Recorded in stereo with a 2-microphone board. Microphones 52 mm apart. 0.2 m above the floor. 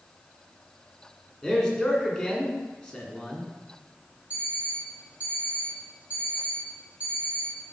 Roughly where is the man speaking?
Centre.